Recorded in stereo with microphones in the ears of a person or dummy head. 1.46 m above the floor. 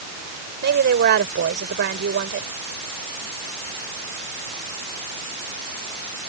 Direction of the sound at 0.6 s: 50° right (ahead or behind).